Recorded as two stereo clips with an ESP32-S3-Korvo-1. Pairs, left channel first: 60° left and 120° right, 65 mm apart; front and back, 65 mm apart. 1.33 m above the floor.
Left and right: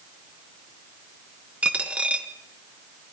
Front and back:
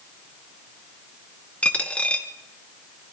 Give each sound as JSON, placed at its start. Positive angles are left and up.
{"t": 1.6, "sound": "a dropped coin", "azimuth_deg": -60, "distance_m": 0.9}